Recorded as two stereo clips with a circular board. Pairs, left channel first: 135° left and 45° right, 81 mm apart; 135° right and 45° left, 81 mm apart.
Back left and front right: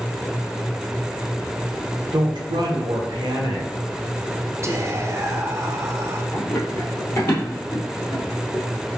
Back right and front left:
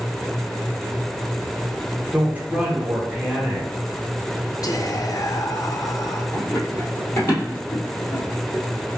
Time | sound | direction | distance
2.1 | a woman speaking | 25° right | 1.0 m
4.6 | whispering | 95° right | 0.6 m
6.3 | running footsteps | 160° right | 1.8 m